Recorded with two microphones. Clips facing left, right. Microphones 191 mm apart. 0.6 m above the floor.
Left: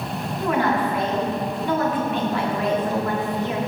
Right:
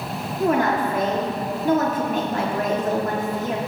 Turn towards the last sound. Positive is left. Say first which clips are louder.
# right 2 dB
turn(degrees=-45)  # may be behind; listen again after turning